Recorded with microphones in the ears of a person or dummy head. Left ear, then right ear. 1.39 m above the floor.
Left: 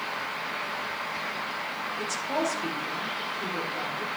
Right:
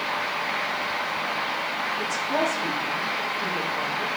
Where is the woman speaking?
65° left (ahead or behind), 4 m.